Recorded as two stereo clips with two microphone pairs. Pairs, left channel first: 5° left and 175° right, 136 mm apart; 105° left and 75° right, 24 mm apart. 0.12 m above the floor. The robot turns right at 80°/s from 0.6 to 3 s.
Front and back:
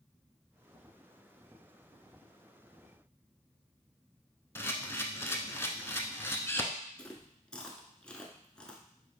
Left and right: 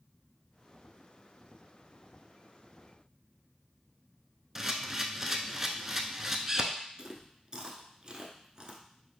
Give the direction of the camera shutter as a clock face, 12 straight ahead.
1 o'clock.